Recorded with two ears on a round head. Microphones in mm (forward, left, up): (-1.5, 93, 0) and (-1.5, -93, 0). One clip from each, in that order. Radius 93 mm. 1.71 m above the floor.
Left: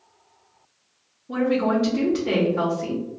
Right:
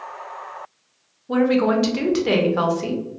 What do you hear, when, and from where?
1.3 s a woman speaking: 35° right (ahead or behind), 0.7 m